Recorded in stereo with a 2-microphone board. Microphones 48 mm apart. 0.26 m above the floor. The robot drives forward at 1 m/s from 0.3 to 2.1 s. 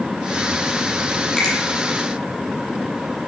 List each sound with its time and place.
1.4 s a finger snap: 10° left (ahead or behind), 7 m